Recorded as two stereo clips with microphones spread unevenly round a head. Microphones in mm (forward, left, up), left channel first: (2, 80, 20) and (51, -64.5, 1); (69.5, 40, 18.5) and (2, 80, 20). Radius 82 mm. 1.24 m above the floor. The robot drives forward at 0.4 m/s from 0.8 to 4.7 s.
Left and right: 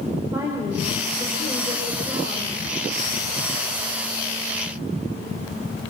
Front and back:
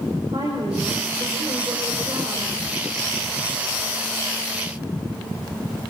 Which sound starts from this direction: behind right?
A woman speaking, at 0.3 s.